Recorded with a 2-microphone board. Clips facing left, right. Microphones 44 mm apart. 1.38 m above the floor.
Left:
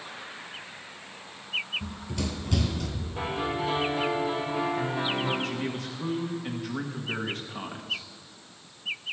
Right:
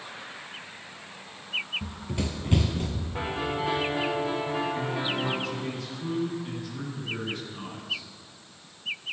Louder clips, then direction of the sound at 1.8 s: Right 1 dB; 15° right (ahead or behind).